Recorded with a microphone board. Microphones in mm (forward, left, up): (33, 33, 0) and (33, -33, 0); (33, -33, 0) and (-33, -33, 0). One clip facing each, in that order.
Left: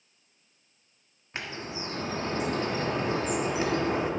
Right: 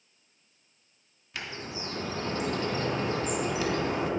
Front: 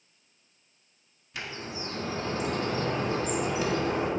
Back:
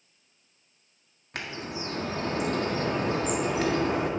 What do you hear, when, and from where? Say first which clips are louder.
1.3 s a bird: left 2 dB, back 2 dB; 150° left, 1.5 m